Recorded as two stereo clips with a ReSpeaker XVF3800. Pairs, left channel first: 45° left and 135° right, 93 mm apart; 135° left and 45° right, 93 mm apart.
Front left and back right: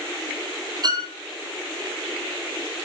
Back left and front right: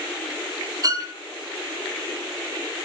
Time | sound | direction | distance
0.8 | a violin | 90° right | 2.5 m